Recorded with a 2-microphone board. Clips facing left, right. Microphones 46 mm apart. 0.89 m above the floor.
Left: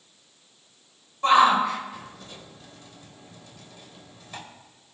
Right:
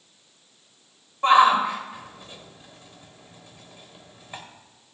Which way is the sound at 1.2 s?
20° right (ahead or behind).